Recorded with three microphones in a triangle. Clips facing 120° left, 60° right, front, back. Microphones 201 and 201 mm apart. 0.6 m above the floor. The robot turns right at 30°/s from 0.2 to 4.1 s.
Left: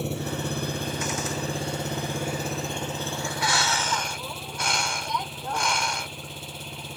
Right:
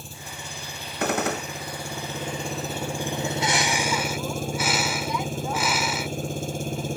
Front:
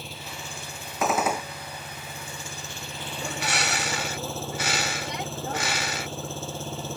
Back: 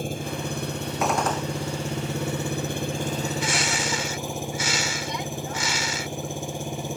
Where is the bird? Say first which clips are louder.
Right 4 dB, back 4 dB; 5° right; by 7.0 s 25° left.